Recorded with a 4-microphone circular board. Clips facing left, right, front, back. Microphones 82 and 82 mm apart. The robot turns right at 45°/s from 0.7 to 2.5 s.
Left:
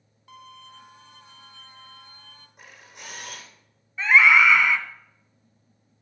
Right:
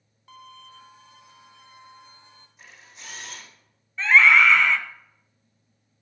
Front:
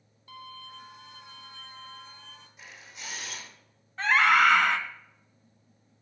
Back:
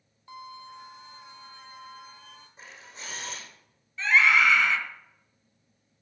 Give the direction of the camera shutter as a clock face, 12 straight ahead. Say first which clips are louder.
Left 3 dB, back 1 dB; 8 o'clock.